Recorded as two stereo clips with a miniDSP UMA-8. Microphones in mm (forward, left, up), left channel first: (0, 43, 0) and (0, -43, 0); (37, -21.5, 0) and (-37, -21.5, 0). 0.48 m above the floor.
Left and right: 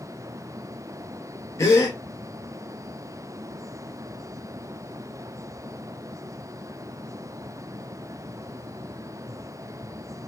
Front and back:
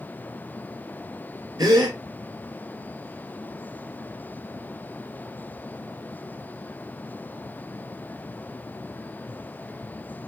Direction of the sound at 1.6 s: 145° left.